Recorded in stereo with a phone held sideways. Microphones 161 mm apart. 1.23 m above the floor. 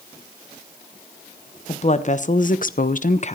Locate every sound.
1.7 s a woman speaking: 45° left (ahead or behind), 1.4 m; by 3.4 s 40° left (ahead or behind), 0.7 m